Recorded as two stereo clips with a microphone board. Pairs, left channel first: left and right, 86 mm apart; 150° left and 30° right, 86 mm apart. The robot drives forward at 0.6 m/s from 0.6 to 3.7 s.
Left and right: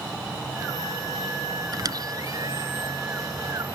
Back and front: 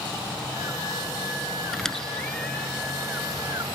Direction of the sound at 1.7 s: 125° right.